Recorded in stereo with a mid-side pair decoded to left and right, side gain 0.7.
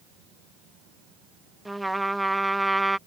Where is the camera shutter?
I don't hear a camera shutter.